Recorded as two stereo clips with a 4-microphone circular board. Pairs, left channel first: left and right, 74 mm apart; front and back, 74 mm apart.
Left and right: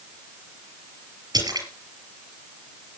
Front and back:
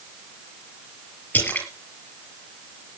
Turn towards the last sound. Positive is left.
turn(degrees=-65)